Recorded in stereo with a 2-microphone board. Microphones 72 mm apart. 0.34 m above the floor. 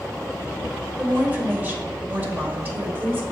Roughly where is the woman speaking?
Right.